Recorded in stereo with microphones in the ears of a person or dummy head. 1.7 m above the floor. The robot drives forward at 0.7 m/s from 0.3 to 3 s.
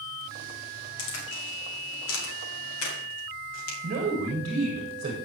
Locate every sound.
1.0 s a crack: 65° left (ahead or behind), 3 m; by 3.7 s 85° left, 2.5 m
3.8 s a man speaking: 40° right (ahead or behind), 1.7 m